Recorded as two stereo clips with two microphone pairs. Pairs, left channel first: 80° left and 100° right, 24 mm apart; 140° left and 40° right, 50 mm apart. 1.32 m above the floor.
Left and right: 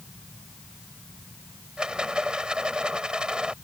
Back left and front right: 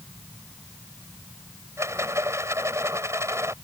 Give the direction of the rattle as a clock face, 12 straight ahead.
2 o'clock.